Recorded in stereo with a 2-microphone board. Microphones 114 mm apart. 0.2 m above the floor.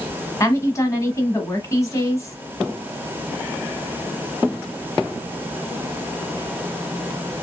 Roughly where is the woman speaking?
Left.